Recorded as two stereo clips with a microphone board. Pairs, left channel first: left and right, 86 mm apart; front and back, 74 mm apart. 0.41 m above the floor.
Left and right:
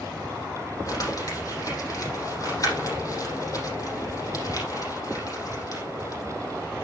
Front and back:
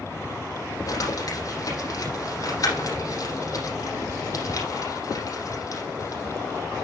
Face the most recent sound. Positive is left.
turn(degrees=40)